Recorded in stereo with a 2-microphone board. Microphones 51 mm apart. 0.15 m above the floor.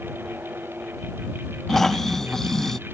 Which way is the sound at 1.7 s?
10° left (ahead or behind).